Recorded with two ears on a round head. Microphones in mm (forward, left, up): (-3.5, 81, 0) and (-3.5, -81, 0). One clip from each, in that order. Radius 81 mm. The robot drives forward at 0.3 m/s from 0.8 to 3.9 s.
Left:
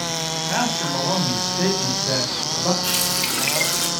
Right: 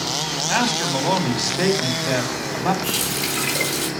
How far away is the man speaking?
About 4.5 m.